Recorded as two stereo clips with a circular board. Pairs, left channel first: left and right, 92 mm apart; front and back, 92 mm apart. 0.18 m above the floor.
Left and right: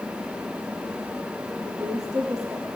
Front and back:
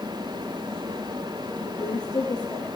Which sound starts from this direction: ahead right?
A woman speaking, at 1.6 s.